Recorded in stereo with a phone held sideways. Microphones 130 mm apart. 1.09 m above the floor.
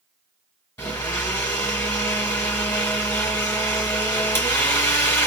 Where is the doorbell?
I don't hear a doorbell.